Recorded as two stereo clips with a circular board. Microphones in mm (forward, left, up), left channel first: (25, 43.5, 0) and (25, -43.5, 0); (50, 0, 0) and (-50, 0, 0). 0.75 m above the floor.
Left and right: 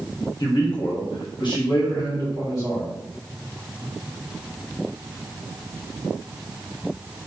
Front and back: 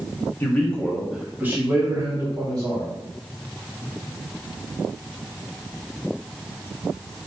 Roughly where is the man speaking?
Ahead left.